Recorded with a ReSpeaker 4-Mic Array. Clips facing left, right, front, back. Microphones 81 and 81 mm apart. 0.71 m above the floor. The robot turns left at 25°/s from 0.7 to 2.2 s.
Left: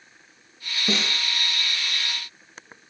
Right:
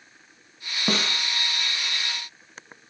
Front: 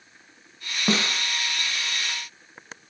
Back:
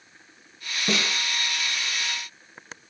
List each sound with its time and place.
0.9 s a snare drum: 55° right, 1.6 m; by 1.2 s 60° right, 1.6 m